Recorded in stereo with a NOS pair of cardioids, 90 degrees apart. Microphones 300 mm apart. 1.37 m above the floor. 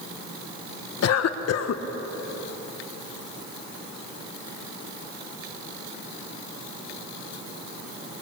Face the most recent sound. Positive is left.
turn(degrees=55)